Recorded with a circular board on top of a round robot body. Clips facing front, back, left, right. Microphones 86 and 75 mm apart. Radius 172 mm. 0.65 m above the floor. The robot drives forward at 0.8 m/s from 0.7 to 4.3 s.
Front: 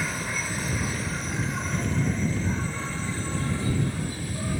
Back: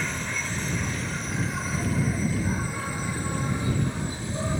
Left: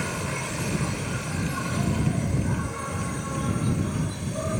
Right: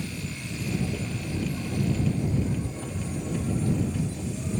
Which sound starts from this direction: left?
An insect, at 0.0 s.